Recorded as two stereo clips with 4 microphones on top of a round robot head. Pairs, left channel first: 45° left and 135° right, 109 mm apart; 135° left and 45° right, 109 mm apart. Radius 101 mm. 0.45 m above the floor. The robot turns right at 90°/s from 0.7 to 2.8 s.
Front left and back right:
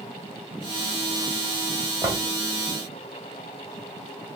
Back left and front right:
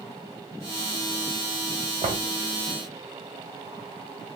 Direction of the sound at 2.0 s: 80° right.